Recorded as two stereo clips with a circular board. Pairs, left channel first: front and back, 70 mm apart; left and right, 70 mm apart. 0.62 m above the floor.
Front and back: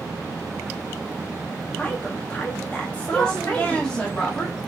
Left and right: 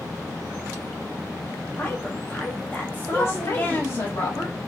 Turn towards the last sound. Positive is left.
turn(degrees=65)